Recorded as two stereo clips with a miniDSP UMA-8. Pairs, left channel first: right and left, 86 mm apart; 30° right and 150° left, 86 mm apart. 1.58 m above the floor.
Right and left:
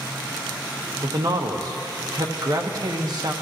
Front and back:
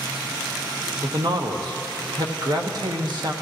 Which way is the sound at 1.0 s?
125° left.